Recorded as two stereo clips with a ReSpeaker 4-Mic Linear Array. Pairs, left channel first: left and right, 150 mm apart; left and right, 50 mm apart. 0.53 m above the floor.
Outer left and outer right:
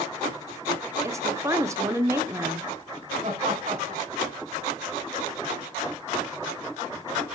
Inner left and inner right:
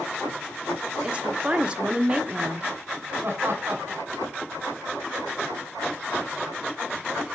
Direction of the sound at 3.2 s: 50° right (ahead or behind).